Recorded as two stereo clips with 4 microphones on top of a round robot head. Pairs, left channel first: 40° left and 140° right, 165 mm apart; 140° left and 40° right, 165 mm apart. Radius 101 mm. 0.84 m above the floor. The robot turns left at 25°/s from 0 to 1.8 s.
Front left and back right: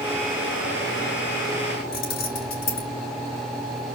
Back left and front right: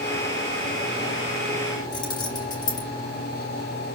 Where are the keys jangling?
70° left, 2.5 m.